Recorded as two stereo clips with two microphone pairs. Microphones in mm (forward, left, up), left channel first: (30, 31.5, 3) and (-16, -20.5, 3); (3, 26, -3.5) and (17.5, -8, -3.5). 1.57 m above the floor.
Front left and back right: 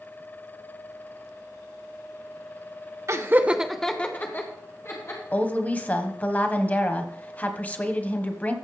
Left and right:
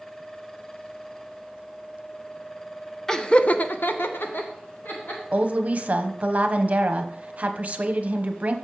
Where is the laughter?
170° right, 1.0 m; by 5.2 s 90° left, 2.5 m.